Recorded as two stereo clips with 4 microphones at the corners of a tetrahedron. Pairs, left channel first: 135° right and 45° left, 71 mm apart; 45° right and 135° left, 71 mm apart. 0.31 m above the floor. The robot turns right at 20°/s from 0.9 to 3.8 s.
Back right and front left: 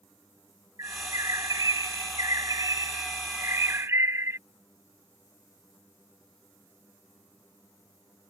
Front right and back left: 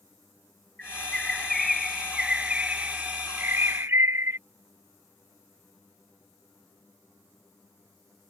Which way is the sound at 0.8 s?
30° left.